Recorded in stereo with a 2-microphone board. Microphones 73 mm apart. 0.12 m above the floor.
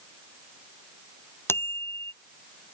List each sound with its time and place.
1.5 s a bicycle bell: 35° left (ahead or behind)